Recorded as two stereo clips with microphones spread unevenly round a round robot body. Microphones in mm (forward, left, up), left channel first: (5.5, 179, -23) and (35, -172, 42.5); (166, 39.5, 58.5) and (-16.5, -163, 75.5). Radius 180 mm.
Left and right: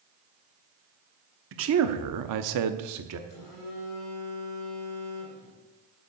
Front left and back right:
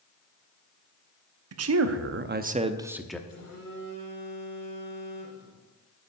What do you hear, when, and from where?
1.5 s a man speaking: 145° right, 1.1 m; by 3.2 s 35° right, 1.1 m
3.3 s a phone buzzing: 80° left, 5.5 m